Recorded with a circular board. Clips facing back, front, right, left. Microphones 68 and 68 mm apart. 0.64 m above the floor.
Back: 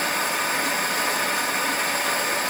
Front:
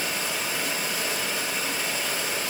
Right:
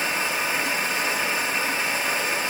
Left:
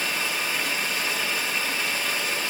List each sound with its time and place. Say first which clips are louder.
0.0 s running water: back 6 dB, right 3 dB; 155° right, 3.5 m